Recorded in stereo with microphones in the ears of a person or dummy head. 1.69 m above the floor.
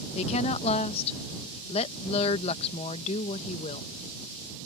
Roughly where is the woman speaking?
Left.